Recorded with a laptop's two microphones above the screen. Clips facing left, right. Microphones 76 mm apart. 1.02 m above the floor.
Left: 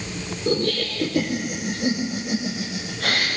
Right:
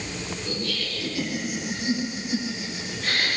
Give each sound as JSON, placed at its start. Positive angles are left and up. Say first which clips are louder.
{"t": 0.5, "sound": "laughter", "louder": "left 12 dB", "side_deg": 50, "distance_m": 3.0}